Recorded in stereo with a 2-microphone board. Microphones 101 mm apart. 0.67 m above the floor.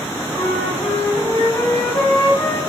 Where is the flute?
35° left (ahead or behind), 2 m.